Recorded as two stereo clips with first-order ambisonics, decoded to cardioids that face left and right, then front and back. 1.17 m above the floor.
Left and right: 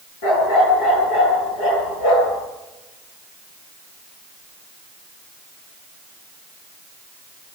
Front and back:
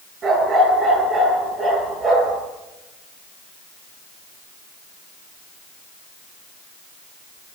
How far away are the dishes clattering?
No dishes clattering in this recording.